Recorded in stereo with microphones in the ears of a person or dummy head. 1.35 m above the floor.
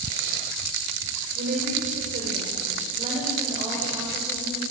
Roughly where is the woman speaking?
Right.